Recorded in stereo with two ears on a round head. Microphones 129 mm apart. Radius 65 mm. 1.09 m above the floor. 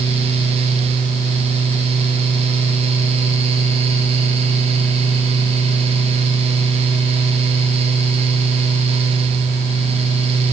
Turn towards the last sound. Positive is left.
No sound to turn to.